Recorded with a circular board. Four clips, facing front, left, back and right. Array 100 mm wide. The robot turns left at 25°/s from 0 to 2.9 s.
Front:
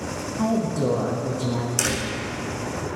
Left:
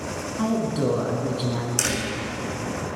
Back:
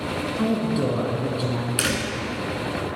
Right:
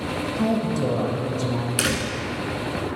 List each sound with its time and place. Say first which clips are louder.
0.4 s a woman speaking: even, front 1 dB; 150° left, 1.3 m; by 1.7 s 120° left, 1.3 m
1.8 s a door slam: right 2 dB, back 1 dB; 130° right, 0.8 m; by 2.1 s 140° right, 0.8 m